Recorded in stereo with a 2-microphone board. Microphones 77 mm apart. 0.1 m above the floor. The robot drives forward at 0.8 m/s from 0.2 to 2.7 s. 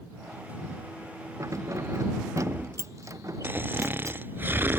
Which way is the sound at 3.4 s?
30° right (ahead or behind).